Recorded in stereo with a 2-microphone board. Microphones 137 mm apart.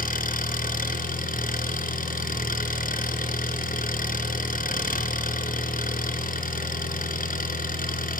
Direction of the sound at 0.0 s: 75° left (ahead or behind).